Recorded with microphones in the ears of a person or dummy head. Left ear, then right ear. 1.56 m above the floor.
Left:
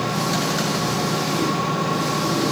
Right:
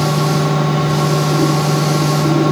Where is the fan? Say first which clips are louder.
Right 5 dB; 5° left (ahead or behind), 1.2 m.